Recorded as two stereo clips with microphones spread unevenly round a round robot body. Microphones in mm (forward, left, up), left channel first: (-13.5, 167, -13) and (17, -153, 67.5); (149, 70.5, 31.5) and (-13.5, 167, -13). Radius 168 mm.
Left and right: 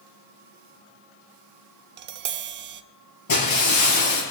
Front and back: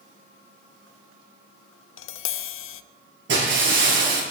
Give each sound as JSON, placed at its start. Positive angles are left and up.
{"t": 2.0, "sound": "tapping", "azimuth_deg": -25, "distance_m": 0.5}
{"t": 3.3, "sound": "breaking glass", "azimuth_deg": 135, "distance_m": 6.0}